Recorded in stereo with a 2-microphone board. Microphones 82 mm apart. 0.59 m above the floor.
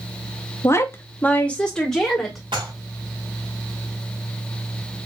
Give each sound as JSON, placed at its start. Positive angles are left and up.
{"t": 0.6, "sound": "a woman speaking", "side_deg": 35, "distance_m": 0.9}
{"t": 2.5, "sound": "dishes clattering", "side_deg": -80, "distance_m": 2.5}